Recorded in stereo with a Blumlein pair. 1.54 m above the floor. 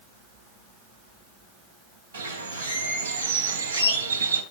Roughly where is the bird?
Right.